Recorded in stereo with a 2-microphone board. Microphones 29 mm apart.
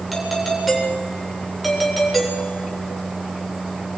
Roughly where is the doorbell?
Centre.